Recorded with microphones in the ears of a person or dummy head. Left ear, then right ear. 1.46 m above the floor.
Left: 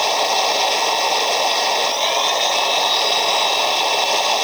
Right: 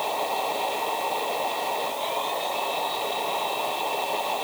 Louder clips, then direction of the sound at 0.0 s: Left 9 dB; 80° left.